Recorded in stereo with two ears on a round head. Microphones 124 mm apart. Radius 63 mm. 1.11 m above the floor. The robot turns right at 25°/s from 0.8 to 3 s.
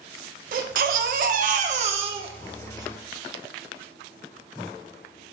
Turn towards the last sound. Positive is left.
turn(degrees=-25)